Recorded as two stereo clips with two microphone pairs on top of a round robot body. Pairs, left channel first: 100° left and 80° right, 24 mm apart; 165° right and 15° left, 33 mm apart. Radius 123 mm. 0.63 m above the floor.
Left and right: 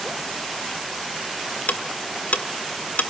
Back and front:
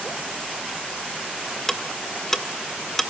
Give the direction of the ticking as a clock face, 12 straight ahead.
8 o'clock.